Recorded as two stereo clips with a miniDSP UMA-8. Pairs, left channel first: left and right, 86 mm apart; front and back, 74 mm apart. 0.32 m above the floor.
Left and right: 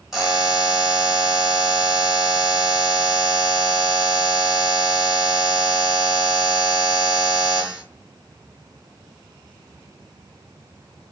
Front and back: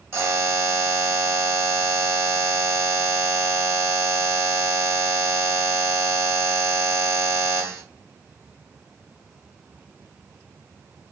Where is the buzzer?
175° right, 0.9 m.